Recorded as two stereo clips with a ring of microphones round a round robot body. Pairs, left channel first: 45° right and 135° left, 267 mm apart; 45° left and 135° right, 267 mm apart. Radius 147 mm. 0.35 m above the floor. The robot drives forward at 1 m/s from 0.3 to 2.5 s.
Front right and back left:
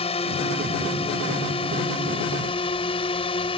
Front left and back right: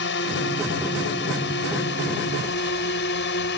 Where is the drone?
15° left; by 3.6 s 20° left.